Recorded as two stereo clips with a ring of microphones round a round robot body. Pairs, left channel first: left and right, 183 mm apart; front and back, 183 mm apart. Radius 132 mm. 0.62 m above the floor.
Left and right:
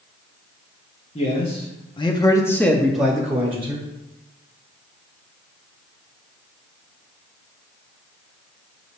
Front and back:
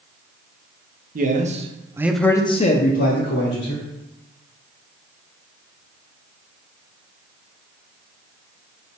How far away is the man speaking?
About 1.0 m.